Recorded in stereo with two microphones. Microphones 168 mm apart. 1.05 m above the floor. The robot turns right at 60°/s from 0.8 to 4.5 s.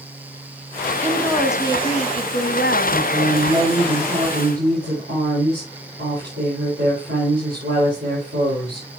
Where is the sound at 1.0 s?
15° right, 0.9 m; by 3.0 s 105° left, 0.9 m.